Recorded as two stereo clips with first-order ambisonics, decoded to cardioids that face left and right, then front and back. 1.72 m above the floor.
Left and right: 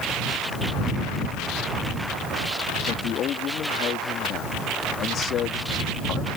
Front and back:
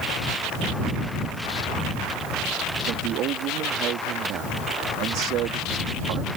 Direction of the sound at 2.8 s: 140° left.